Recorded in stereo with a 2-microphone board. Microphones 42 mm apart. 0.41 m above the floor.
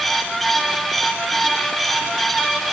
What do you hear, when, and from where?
Only background noise.